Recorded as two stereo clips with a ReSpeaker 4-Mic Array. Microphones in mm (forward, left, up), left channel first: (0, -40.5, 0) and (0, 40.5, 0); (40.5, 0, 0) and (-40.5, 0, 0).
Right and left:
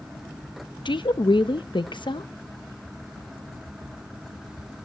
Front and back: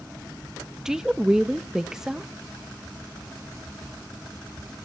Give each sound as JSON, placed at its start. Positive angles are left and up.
{"t": 0.8, "sound": "a woman speaking", "azimuth_deg": -95, "distance_m": 0.7}